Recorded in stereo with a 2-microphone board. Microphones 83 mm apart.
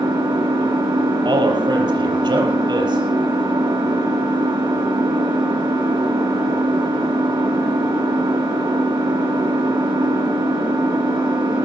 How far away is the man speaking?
About 5 m.